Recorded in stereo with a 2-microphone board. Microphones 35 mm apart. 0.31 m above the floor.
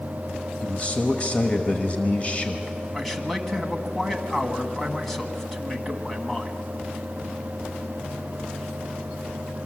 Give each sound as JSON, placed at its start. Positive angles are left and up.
{"t": 0.6, "sound": "a man speaking", "side_deg": 40, "distance_m": 1.1}
{"t": 2.9, "sound": "a man speaking", "side_deg": 5, "distance_m": 1.8}